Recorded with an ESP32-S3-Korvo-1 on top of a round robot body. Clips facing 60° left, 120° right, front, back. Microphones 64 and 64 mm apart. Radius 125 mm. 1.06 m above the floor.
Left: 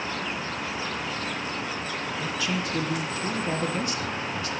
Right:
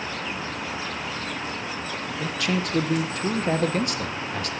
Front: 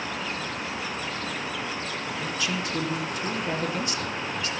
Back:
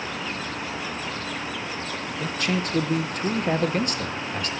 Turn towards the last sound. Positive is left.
turn(degrees=-145)